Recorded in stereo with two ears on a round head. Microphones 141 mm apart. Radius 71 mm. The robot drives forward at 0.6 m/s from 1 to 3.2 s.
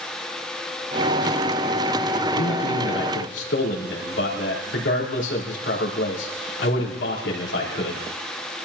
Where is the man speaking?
80° left, 3.5 m; by 8.0 s 90° left, 3.5 m.